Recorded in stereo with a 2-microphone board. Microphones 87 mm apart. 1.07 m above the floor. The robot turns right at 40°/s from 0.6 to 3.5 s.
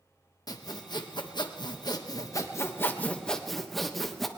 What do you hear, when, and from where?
0.5 s sawing: 60° left, 1.2 m; by 4.3 s 175° left, 1.2 m